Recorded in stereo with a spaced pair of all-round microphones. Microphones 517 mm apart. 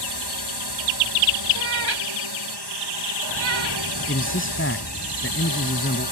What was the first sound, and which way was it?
A drone, 50° right (ahead or behind).